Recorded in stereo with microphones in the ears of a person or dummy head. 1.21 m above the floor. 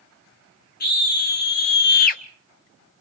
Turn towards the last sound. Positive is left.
turn(degrees=40)  # may be behind; listen again after turning